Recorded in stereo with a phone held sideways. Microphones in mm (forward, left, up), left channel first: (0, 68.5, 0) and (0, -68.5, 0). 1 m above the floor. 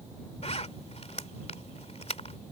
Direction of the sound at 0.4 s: 50° left (ahead or behind).